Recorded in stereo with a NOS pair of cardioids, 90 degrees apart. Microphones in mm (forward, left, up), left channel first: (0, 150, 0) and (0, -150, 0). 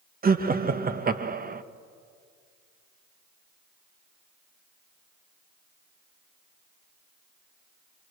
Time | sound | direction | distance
0.2 | laughter | 30° right | 1.6 m